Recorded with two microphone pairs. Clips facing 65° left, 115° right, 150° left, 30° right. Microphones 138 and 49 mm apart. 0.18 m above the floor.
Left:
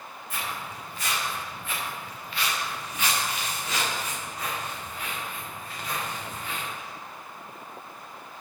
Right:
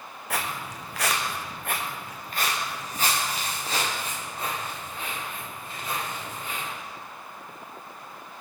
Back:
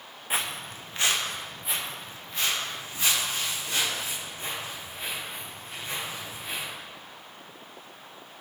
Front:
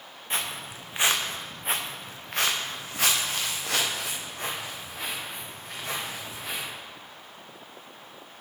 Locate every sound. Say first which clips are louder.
0.3 s footsteps: right 4 dB, back 1 dB; 130° right, 0.9 m; by 6.7 s 45° right, 4.5 m